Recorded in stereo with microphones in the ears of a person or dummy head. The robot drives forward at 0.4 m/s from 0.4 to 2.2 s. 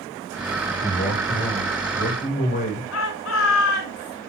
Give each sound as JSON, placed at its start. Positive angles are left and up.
{"t": 0.8, "sound": "a man speaking", "side_deg": 45, "distance_m": 7.5}
{"t": 2.9, "sound": "a shout", "side_deg": 85, "distance_m": 7.5}